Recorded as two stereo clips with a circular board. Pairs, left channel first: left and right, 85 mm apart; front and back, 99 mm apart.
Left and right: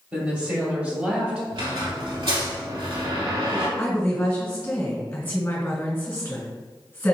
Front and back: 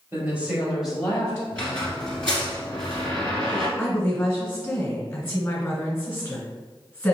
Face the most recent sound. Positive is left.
turn(degrees=60)